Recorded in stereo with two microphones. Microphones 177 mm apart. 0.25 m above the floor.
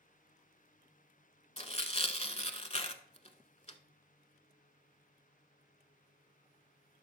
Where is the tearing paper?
40° left (ahead or behind), 0.8 m.